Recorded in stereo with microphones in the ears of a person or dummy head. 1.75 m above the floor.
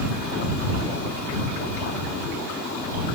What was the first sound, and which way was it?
Only background noise.